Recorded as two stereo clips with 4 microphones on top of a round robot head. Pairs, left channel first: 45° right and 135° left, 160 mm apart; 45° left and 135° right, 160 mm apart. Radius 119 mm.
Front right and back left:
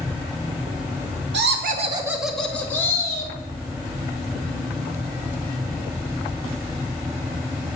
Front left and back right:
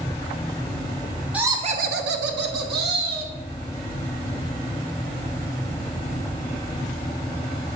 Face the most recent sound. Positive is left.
turn(degrees=-110)